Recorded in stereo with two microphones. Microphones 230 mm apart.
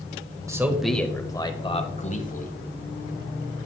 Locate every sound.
0.5 s a man speaking: 15° right (ahead or behind), 0.9 m; by 2.6 s 40° left (ahead or behind), 1.5 m